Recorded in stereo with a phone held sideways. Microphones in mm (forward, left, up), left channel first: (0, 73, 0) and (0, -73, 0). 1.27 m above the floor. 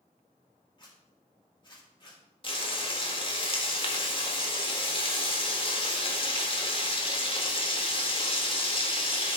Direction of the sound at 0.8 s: 30° left (ahead or behind).